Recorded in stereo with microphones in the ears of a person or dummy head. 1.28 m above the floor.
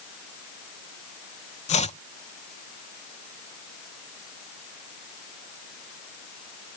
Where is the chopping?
35° left (ahead or behind).